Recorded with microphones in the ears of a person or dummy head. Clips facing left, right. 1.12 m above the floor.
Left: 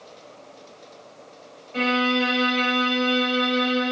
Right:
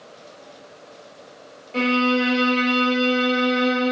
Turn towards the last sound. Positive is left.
turn(degrees=-50)  # may be behind; listen again after turning